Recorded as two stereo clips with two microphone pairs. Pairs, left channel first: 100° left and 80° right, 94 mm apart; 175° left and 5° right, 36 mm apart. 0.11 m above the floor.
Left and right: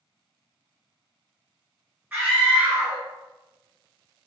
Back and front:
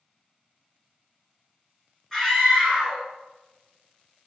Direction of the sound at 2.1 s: 130° right.